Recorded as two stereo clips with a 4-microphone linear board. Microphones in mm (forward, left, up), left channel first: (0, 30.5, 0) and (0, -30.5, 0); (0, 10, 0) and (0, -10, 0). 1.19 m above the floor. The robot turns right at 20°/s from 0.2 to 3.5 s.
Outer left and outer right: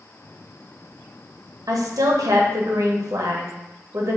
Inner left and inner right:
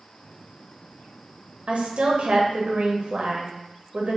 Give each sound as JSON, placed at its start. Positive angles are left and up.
{"t": 1.7, "sound": "a woman speaking", "azimuth_deg": -105, "distance_m": 0.7}